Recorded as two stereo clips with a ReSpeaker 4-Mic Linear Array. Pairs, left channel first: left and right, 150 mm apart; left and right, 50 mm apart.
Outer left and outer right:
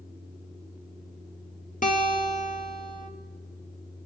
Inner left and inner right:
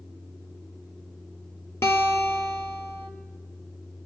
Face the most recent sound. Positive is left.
turn(degrees=60)  # may be behind; listen again after turning